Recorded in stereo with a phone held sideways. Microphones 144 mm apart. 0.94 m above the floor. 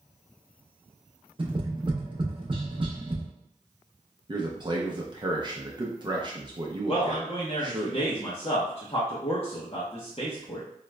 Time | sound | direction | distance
1.4 | tapping | 35° right (ahead or behind) | 0.7 m
4.3 | a man speaking | 30° right (ahead or behind) | 0.5 m
6.9 | a man speaking | 40° left (ahead or behind) | 0.7 m